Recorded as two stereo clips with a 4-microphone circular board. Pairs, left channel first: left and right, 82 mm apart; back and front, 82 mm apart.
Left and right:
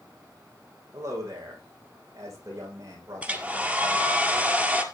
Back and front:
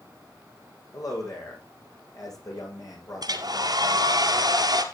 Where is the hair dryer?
20° right, 2 m.